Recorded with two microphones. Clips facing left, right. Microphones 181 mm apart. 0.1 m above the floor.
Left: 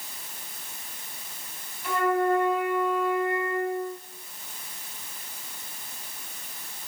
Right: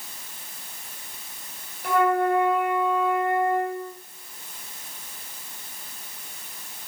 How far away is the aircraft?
I don't hear an aircraft.